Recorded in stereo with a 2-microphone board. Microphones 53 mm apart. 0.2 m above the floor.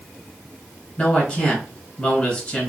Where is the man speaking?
25° left (ahead or behind), 1.8 m.